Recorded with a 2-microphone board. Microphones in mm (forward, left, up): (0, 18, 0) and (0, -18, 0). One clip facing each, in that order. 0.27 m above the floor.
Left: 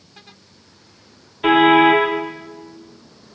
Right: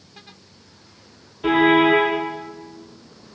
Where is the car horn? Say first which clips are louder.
Left 3 dB; 50° left (ahead or behind), 4.5 m.